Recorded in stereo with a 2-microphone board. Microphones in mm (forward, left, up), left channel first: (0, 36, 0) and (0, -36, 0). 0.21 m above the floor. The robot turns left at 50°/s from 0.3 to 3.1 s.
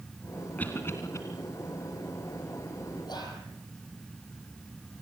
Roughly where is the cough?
Left.